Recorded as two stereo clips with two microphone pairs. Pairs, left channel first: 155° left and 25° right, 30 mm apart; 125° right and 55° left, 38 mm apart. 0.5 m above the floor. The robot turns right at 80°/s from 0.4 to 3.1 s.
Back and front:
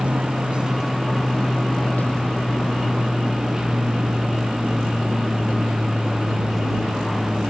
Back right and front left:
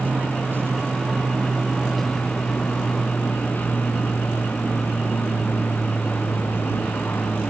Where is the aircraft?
20° left; by 7.5 s 125° right.